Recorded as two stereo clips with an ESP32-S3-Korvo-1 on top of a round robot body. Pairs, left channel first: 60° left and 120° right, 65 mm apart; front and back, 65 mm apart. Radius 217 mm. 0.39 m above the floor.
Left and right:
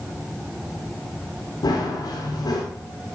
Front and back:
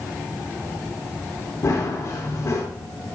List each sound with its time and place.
1.6 s running footsteps: 40° left, 4 m